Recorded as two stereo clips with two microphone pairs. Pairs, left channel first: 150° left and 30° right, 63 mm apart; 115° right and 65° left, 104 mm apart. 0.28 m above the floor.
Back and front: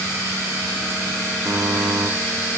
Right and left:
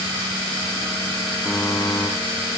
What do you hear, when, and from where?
1.4 s a buzzer: 25° right, 3 m